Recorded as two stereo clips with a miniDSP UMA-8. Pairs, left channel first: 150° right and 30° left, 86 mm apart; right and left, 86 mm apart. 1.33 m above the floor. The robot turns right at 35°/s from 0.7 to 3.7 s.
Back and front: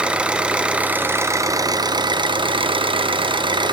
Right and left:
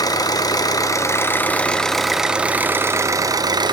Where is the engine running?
45° right, 0.8 m; by 3.7 s 60° left, 0.8 m.